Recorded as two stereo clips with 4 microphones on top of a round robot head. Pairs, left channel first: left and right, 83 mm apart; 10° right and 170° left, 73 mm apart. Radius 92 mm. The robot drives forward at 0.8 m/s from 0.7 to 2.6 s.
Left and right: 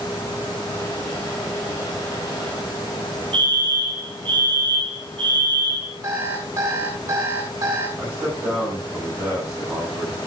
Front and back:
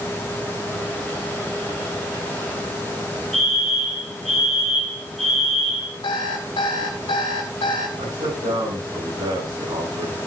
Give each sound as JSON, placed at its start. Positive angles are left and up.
{"t": 3.3, "sound": "a fire alarm", "azimuth_deg": -100, "distance_m": 6.0}
{"t": 6.0, "sound": "an alarm clock", "azimuth_deg": -35, "distance_m": 4.0}
{"t": 8.0, "sound": "a man speaking", "azimuth_deg": -155, "distance_m": 7.5}